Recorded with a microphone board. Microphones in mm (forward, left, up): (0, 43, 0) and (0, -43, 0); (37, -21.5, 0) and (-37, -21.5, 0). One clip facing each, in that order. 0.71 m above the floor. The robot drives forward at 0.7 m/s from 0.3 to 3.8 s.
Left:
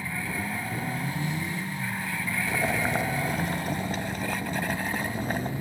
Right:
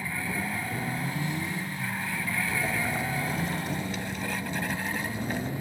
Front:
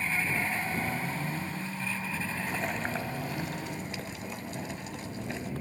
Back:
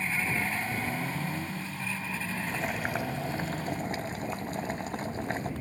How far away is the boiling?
About 0.9 m.